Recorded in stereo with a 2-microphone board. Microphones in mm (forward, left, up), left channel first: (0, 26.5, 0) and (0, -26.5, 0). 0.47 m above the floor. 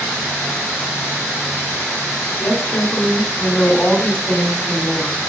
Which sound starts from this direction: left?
A woman speaking, at 2.4 s.